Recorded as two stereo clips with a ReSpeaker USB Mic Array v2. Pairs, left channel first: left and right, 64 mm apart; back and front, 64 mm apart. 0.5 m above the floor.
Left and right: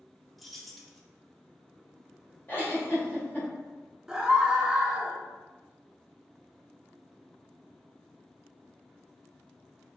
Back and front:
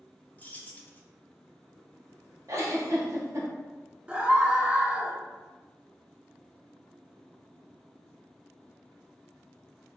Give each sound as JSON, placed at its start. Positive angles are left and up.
{"t": 0.4, "sound": "keys jangling", "azimuth_deg": 180, "distance_m": 0.6}
{"t": 2.5, "sound": "a giggle", "azimuth_deg": 35, "distance_m": 1.6}
{"t": 4.1, "sound": "a scream", "azimuth_deg": -35, "distance_m": 0.7}